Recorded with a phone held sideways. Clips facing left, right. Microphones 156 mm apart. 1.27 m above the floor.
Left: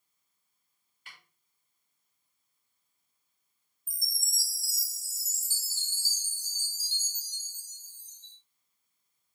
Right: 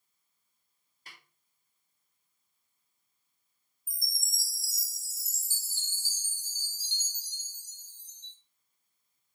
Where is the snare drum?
35° right (ahead or behind), 2.5 m.